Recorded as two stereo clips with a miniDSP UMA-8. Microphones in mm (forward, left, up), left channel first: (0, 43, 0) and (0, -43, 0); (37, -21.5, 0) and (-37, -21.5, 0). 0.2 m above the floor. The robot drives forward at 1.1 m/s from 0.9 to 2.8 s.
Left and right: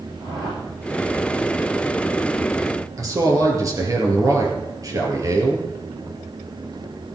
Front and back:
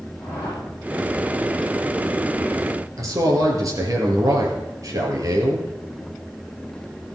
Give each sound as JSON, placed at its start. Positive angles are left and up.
{"t": 0.2, "sound": "a whoosh", "azimuth_deg": -55, "distance_m": 9.0}
{"t": 3.0, "sound": "a man speaking", "azimuth_deg": -140, "distance_m": 3.5}